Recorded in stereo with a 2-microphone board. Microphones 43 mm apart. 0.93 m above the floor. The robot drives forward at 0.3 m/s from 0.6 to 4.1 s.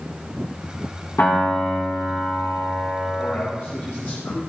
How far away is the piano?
About 7 m.